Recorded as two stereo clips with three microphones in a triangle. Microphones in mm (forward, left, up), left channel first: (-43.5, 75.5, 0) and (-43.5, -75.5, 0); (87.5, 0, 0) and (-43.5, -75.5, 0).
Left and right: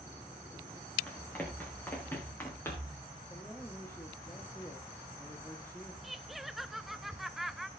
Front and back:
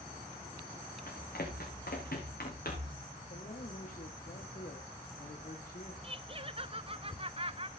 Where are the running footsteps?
10° left, 5 m; by 3.0 s 15° left, 4 m.